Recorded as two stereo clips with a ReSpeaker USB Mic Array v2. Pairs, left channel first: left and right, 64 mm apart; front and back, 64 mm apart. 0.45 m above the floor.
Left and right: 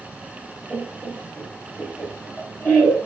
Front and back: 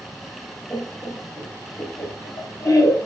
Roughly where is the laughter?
Ahead left.